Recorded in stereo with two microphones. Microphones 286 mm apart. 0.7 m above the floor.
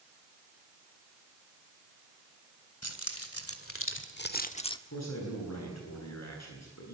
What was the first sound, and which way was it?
Keys jangling, 55° left (ahead or behind).